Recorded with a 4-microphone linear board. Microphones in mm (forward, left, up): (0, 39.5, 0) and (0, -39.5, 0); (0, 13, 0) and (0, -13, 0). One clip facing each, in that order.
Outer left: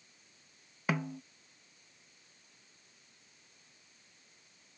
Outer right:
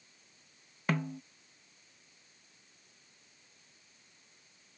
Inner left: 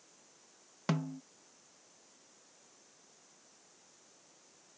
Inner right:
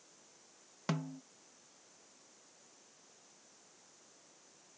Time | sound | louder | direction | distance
0.9 | a snare drum | outer right 1 dB, inner left 3 dB | 5° left (ahead or behind) | ?